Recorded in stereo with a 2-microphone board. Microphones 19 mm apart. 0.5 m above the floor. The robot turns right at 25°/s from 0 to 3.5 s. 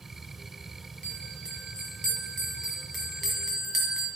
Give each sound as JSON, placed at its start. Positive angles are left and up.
{"t": 1.0, "sound": "a bell", "azimuth_deg": 125, "distance_m": 2.0}